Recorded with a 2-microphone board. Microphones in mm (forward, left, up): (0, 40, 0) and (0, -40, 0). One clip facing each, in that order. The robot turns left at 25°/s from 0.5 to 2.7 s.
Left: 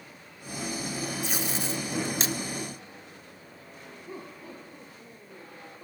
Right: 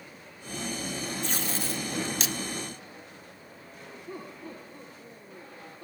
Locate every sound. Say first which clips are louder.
1.2 s tape being pulled: left 1 dB; 10° left (ahead or behind), 1.1 m; by 2.4 s 35° left (ahead or behind), 1.1 m
4.1 s laughter: right 1 dB; 10° left (ahead or behind), 8 m